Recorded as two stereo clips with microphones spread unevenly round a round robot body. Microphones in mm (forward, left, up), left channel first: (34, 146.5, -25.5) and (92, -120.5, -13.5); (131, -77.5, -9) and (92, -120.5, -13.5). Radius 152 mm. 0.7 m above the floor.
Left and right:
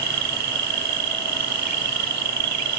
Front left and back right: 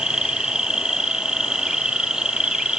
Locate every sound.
0.0 s an insect: 55° right, 1.6 m